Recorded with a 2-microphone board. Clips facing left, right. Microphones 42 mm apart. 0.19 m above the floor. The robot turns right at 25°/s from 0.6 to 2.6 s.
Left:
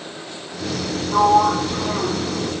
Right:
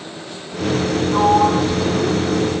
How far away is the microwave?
No microwave in this recording.